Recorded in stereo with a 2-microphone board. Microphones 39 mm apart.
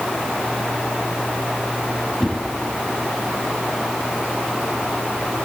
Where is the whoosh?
15° left (ahead or behind), 6.5 m.